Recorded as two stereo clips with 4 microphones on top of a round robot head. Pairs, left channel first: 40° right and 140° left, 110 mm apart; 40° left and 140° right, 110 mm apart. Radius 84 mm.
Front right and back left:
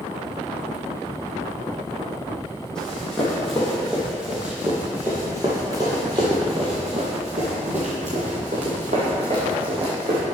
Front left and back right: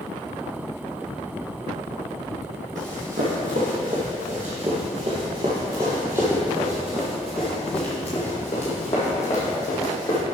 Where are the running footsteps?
125° right, 2.5 m; by 10.2 s 100° left, 3 m.